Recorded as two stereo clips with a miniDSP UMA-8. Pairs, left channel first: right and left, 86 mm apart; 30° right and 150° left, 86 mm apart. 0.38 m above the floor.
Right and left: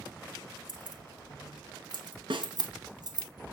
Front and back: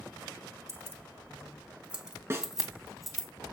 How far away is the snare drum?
About 3 m.